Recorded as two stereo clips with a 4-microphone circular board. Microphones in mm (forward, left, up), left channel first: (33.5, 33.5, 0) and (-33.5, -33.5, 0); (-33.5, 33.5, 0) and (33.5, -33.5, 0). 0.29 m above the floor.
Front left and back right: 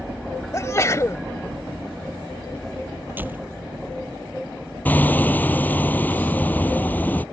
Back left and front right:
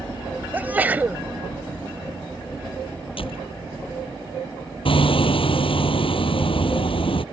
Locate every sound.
0.5 s a sneeze: 15° left
3.2 s a door slam: 155° left
4.8 s hammering: 115° left